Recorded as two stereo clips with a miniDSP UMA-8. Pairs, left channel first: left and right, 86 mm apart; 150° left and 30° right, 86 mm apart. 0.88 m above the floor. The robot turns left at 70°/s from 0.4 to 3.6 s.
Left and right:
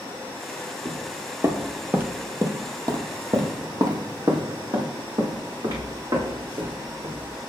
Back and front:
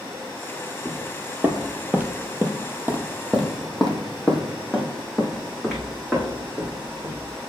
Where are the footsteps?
70° right, 1.0 m; by 7.5 s 115° right, 3.5 m.